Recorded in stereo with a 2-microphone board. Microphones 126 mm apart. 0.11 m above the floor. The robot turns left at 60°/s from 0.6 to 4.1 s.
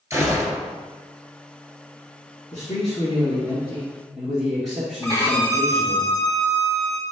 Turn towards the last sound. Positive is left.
turn(degrees=25)  # may be behind; listen again after turning